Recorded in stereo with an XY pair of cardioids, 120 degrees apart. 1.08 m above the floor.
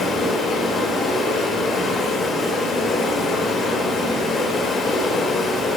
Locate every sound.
0.0 s running water: 55° left, 3.5 m